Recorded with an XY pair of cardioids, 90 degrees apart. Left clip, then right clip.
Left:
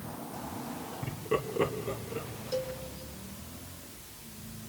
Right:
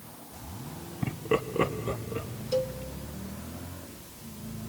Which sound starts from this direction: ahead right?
A cowbell, at 2.5 s.